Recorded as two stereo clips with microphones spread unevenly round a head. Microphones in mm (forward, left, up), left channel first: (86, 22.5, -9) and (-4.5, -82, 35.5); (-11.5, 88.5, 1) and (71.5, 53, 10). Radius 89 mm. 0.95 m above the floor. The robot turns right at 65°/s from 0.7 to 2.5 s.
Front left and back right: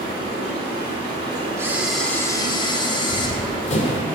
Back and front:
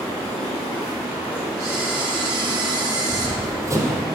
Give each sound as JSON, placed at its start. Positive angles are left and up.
{"t": 0.0, "sound": "running water", "azimuth_deg": 170, "distance_m": 2.0}
{"t": 1.6, "sound": "a camera shutter", "azimuth_deg": -75, "distance_m": 0.8}
{"t": 3.1, "sound": "running footsteps", "azimuth_deg": 5, "distance_m": 1.3}